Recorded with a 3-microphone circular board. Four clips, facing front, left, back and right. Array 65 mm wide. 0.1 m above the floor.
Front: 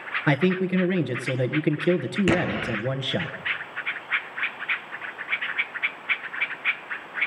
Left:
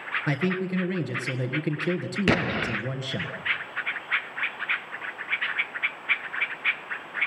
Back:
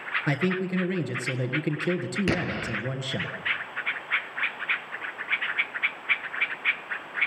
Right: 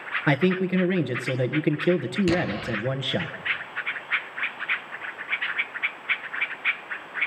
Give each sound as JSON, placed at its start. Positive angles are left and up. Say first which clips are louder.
{"t": 0.3, "sound": "a man speaking", "louder": "right 6 dB, front 6 dB", "azimuth_deg": -55, "distance_m": 1.4}
{"t": 2.3, "sound": "an explosion", "louder": "left 3 dB, front 6 dB", "azimuth_deg": 70, "distance_m": 0.5}